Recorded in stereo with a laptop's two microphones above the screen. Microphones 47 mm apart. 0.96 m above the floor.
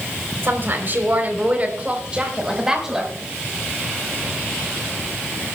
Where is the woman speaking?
50° right (ahead or behind), 4 m; by 3.1 s 5° right (ahead or behind), 5 m.